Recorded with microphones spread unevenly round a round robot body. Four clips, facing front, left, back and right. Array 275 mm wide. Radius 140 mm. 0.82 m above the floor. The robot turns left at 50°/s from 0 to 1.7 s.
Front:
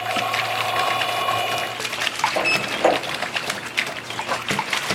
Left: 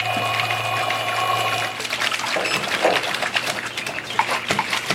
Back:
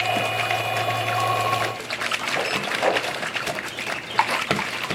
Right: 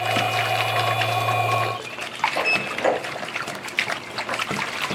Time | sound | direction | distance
2.4 | a sliding door | 35° left | 0.7 m